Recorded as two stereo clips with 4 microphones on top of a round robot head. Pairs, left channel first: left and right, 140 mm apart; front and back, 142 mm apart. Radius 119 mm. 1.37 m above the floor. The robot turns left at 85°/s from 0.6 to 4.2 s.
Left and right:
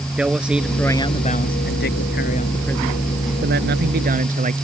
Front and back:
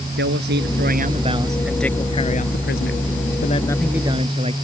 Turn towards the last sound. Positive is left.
turn(degrees=-120)